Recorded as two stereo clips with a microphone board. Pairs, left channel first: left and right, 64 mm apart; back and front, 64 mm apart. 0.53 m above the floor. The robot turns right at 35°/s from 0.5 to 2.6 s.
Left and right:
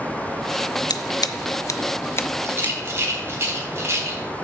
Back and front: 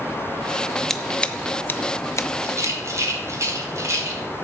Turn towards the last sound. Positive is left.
turn(degrees=-35)